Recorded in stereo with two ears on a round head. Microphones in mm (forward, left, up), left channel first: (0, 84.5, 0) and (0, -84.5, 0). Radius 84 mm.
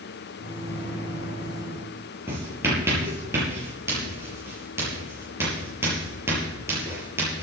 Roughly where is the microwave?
Left.